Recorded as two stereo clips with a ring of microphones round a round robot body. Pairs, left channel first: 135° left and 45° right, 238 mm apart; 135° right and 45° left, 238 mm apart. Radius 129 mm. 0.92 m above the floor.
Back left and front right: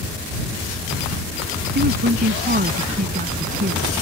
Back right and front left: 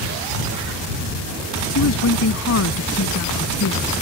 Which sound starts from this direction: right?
A woman speaking, at 1.8 s.